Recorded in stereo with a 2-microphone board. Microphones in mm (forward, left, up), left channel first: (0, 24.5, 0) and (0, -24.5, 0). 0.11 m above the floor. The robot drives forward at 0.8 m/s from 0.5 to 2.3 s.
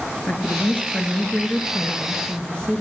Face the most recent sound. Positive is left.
turn(degrees=20)  # may be behind; listen again after turning